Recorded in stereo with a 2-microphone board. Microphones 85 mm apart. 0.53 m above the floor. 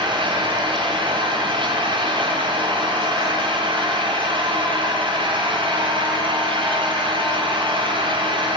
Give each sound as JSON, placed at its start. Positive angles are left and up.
{"t": 0.0, "sound": "an engine running", "side_deg": -75, "distance_m": 9.5}